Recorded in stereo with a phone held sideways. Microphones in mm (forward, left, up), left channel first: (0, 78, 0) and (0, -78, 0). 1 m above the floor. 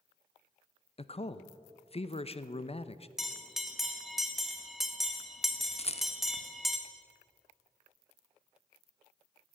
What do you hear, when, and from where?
1.0 s a man speaking: 40° left (ahead or behind), 0.6 m
3.2 s a bell: centre (ahead or behind), 1.3 m
5.8 s a rattle: 40° left (ahead or behind), 0.9 m